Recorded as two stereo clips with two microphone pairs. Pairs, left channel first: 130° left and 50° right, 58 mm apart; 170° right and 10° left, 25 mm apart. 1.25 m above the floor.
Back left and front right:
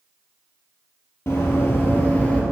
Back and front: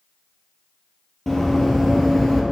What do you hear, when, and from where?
1.3 s running footsteps: 115° left, 1.7 m; by 2.4 s 110° left, 1.3 m